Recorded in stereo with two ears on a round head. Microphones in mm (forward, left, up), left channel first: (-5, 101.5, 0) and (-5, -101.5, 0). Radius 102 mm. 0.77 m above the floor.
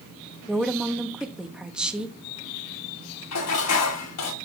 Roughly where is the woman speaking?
Centre.